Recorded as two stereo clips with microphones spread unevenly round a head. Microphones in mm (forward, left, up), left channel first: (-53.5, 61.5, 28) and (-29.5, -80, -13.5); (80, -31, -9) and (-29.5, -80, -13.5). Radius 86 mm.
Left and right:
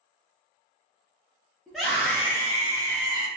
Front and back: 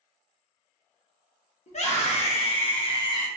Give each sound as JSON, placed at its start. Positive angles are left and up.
{"t": 1.7, "sound": "a scream", "azimuth_deg": 5, "distance_m": 1.8}